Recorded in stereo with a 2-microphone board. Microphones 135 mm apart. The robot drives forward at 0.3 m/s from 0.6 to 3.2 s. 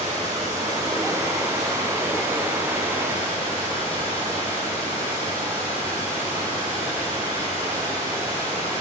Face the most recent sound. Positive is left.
turn(degrees=-20)  # may be behind; listen again after turning